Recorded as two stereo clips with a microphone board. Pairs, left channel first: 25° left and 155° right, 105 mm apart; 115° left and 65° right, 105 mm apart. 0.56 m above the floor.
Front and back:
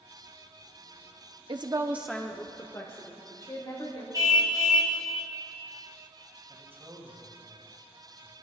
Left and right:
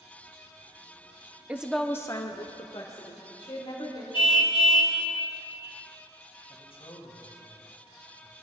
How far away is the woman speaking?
About 0.8 m.